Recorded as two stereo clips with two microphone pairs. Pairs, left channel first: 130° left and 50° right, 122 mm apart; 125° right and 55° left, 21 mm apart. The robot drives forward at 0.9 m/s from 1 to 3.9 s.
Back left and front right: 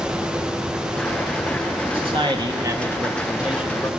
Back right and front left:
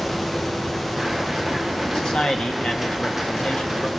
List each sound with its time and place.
1.9 s a man speaking: 75° right, 1.6 m; by 3.9 s 140° right, 2 m